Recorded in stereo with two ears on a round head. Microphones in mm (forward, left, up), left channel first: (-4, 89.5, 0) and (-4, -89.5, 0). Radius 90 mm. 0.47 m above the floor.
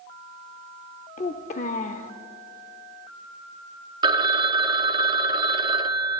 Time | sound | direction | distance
1.2 | a child speaking | 40° left (ahead or behind) | 0.7 m
4.0 | a phone ringing | 25° right (ahead or behind) | 0.6 m